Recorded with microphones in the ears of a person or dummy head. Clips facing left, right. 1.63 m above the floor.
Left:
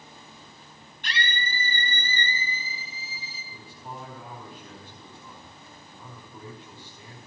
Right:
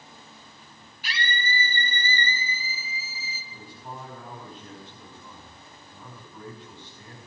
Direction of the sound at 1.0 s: 5° right (ahead or behind).